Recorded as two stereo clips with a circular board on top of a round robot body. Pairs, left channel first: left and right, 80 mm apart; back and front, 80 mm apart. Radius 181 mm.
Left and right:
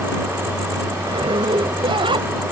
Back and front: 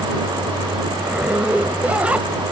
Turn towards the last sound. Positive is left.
turn(degrees=-75)